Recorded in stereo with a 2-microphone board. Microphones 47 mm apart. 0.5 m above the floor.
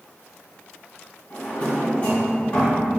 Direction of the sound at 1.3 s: 30° left (ahead or behind).